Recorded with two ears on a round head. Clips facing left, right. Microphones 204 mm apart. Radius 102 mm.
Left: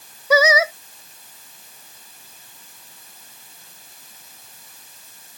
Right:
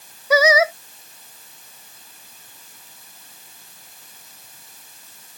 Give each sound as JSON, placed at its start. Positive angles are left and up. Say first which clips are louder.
{"t": 0.3, "sound": "singing", "louder": "right 1 dB", "side_deg": 80}